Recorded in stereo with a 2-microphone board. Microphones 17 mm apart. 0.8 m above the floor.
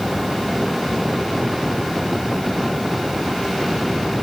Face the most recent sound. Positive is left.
No sound to turn to.